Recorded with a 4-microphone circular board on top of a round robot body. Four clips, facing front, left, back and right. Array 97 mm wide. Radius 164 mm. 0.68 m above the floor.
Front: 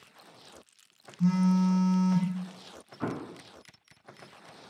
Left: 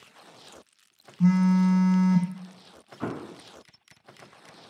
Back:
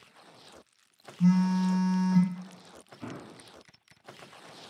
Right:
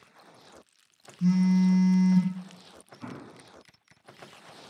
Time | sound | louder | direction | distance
1.2 | a phone buzzing | left 2 dB, even | 95° left | 1.1 m
3.0 | an explosion | left 9 dB, front 8 dB | 55° left | 0.6 m